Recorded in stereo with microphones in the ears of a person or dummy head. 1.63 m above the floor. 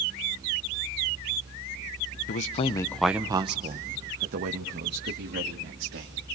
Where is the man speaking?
45° left (ahead or behind), 0.8 m; by 6.2 s 65° right (ahead or behind), 3 m.